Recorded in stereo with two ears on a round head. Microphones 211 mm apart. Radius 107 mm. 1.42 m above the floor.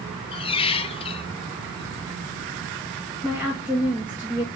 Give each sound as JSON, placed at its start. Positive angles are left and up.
{"t": 0.3, "sound": "a squeak", "side_deg": 25, "distance_m": 0.7}
{"t": 3.2, "sound": "a woman speaking", "side_deg": -5, "distance_m": 1.7}